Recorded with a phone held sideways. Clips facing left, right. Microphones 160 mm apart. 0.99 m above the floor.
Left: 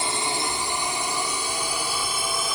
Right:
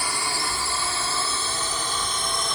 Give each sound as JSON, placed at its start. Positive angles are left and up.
{"t": 0.0, "sound": "a drone", "side_deg": 20}